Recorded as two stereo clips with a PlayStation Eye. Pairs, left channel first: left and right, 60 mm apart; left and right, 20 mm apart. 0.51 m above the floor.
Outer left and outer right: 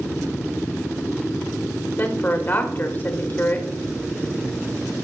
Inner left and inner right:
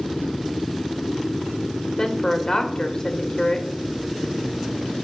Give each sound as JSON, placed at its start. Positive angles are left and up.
{"t": 2.0, "sound": "a woman speaking", "side_deg": 35, "distance_m": 1.4}